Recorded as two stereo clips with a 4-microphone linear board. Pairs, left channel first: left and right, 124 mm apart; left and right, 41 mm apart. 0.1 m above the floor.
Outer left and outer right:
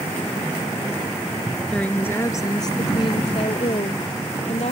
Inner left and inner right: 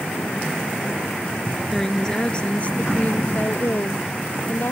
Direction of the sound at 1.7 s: 5° left (ahead or behind).